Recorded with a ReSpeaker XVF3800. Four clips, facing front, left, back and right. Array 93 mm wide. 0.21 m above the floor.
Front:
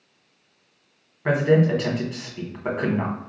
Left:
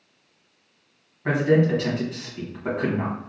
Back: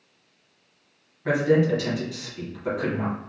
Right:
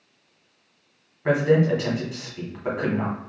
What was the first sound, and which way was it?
A man speaking, 10° right.